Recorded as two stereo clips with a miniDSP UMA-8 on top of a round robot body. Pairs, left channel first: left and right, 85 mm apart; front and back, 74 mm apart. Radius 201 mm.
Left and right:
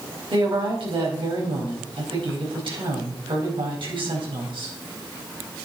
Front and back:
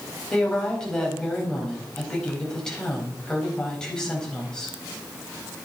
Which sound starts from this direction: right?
A woman speaking, at 0.3 s.